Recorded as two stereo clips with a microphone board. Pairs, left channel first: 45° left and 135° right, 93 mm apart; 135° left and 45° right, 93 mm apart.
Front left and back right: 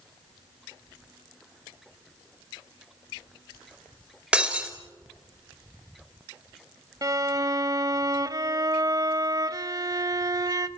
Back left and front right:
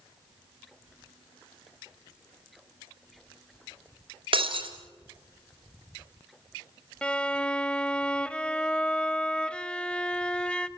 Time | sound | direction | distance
4.3 | breaking glass | 60° right | 3 m
7.0 | a violin | 150° right | 0.8 m